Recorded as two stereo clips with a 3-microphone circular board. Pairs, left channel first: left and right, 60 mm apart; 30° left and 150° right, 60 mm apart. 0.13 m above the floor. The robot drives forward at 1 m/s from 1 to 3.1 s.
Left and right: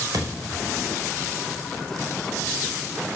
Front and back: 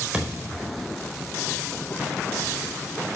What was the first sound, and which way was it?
A thud, 70° right.